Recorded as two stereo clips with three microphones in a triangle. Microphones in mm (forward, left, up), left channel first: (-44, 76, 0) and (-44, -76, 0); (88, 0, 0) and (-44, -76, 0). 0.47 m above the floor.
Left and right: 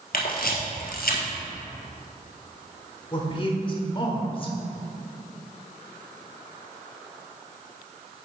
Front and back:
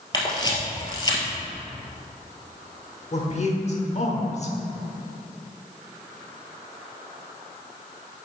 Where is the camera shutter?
90° left, 1.5 m.